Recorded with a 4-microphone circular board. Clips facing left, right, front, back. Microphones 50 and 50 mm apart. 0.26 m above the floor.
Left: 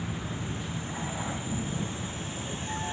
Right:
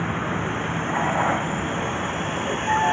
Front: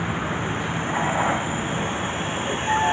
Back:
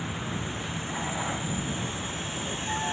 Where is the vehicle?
55° right.